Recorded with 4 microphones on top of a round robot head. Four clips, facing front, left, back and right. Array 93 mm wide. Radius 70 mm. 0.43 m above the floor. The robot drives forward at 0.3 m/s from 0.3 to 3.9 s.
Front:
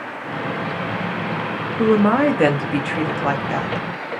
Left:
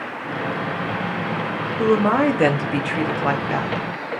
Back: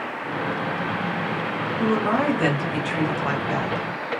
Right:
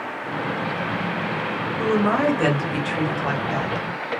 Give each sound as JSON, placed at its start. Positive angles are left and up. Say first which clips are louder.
{"t": 1.8, "sound": "a woman speaking", "louder": "left 3 dB, front 7 dB", "azimuth_deg": 30, "distance_m": 1.1}